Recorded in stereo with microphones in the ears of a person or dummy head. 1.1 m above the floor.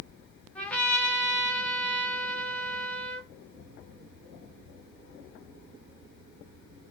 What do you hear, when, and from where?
0.6 s a trumpet: 5° left (ahead or behind), 1.2 m